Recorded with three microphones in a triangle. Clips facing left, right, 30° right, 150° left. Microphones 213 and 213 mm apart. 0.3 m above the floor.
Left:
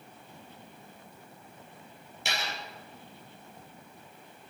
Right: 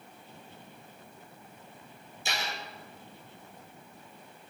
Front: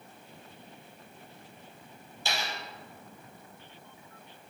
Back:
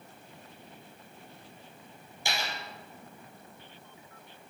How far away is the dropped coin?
About 3.5 m.